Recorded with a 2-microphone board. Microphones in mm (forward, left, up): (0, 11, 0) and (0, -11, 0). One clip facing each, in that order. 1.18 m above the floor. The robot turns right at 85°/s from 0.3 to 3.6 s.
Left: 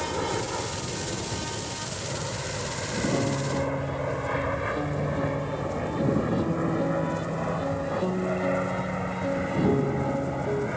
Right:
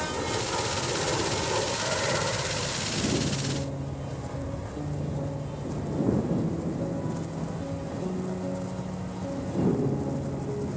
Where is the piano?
100° left; by 10.7 s 140° left.